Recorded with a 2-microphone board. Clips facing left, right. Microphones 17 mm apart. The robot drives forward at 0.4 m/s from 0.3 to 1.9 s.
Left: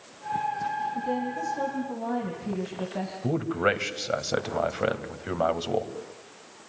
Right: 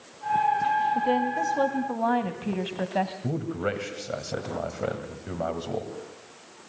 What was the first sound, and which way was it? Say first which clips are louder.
A woman speaking: right 5 dB; 50° right (ahead or behind).